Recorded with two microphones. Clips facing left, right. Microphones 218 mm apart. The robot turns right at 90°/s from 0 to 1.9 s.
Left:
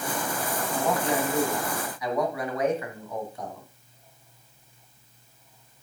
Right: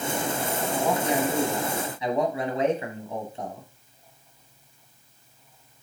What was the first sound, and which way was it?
A man speaking, 5° right (ahead or behind).